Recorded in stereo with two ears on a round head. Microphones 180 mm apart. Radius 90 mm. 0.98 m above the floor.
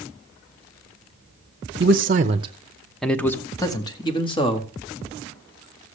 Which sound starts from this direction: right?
A man speaking, at 1.8 s.